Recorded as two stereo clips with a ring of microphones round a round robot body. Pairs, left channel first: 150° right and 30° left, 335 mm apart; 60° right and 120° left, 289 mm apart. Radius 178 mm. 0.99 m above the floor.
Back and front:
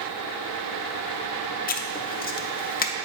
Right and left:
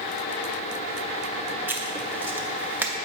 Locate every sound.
1.7 s writing: 165° right, 0.5 m